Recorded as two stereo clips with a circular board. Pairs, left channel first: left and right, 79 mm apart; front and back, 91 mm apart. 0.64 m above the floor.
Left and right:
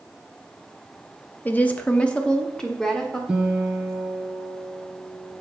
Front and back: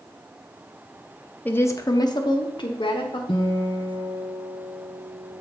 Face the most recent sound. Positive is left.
turn(degrees=-15)